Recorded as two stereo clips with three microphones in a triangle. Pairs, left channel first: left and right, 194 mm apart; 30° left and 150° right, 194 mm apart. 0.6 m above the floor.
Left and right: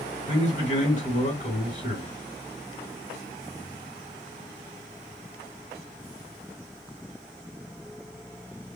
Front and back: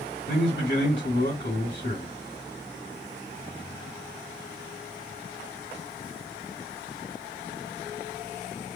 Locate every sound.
0.3 s a man speaking: 45° left, 1.6 m